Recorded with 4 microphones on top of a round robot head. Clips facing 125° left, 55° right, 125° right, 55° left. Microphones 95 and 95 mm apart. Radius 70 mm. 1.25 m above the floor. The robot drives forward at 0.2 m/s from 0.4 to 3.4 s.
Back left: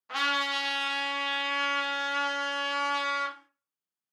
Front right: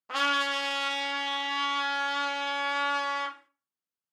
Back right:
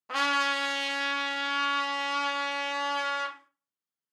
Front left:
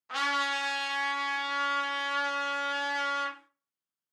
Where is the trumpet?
95° right, 0.5 m; by 3.4 s 145° right, 0.8 m.